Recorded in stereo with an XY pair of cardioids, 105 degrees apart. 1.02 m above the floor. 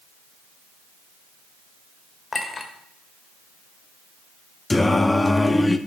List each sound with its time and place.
2.3 s a clink: 25° left, 2.5 m
4.7 s singing: 15° left, 1.0 m